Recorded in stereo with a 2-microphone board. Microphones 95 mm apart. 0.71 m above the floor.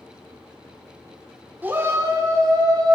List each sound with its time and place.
1.6 s a shout: 20° right (ahead or behind), 1.9 m; by 3.0 s 50° right (ahead or behind), 3 m